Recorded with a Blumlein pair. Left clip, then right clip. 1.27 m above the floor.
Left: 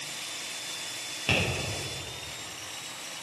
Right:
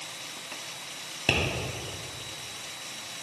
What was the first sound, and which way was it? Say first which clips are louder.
Tapping: right 1 dB; 20° right.